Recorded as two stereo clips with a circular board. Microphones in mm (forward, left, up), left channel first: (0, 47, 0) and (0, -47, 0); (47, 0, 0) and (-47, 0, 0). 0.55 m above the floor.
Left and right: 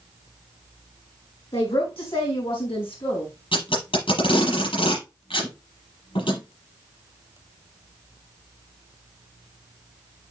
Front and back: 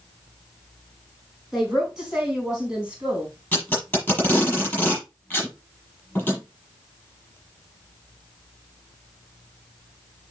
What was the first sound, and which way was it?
A woman speaking, 95° left.